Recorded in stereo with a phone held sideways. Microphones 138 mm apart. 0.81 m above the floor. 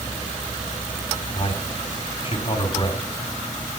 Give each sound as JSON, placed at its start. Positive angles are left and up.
{"t": 1.4, "sound": "a man speaking", "side_deg": 40, "distance_m": 2.5}